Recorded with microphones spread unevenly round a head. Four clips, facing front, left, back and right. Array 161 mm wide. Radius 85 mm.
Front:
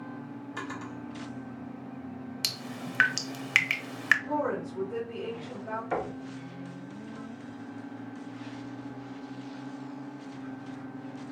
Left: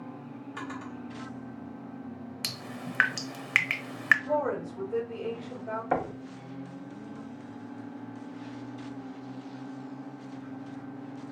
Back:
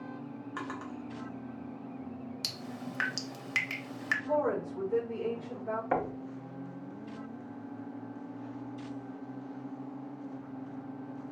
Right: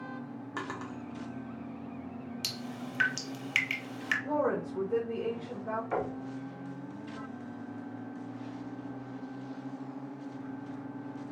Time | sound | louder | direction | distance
0.6 | a drawer | even, front 1 dB | 90° right | 1.2 m
2.4 | dripping | left 1 dB, front 2 dB | 60° left | 0.7 m
4.2 | a woman speaking | left 1 dB, even | 65° right | 1.9 m
5.9 | knocking | left 6 dB, back 1 dB | 115° left | 0.8 m